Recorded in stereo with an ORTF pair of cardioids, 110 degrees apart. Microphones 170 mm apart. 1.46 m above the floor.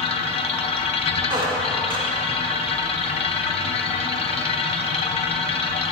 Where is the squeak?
30° right, 1.7 m.